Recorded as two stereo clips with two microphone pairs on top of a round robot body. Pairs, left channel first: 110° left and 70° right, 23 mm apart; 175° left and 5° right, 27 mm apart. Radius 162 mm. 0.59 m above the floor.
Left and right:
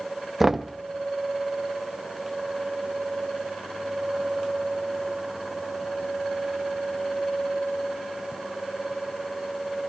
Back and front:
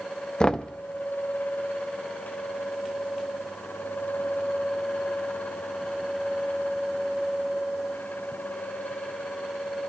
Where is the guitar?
I don't hear a guitar.